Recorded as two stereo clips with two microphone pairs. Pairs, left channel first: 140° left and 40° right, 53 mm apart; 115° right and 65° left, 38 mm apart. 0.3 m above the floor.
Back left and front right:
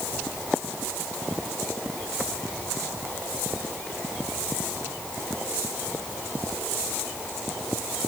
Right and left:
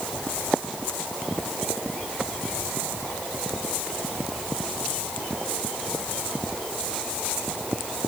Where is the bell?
No bell in this recording.